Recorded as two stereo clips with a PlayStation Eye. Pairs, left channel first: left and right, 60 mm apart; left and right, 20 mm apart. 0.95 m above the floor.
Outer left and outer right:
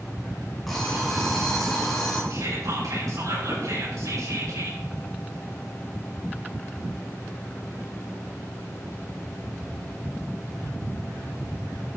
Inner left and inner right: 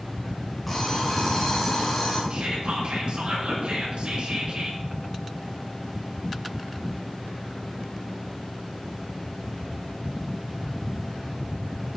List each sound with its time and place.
0.7 s an alarm clock: 5° left (ahead or behind), 5 m
2.3 s whispering: 70° right (ahead or behind), 5.5 m